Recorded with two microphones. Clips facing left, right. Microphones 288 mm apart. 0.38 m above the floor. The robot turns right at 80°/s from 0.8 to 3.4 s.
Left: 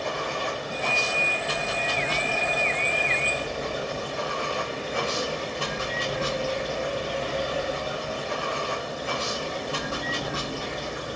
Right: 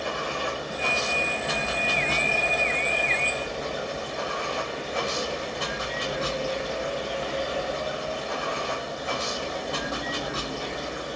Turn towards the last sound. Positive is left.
turn(degrees=35)